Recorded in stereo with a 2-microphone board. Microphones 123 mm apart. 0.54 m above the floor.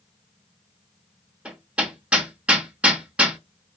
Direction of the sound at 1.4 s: 10° right (ahead or behind).